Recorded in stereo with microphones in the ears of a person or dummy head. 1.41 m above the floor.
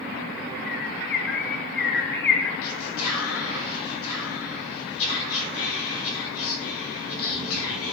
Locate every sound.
0.7 s a bird: 60° left (ahead or behind), 2.5 m
2.6 s whispering: 75° left (ahead or behind), 4 m